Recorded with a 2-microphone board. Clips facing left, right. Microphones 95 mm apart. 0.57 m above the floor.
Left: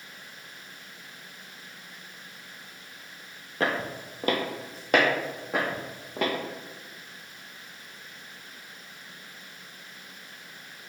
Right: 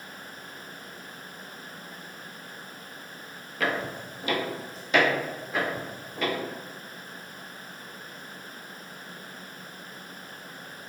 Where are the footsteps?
35° left (ahead or behind), 0.8 m; by 6.3 s 65° left (ahead or behind), 2 m.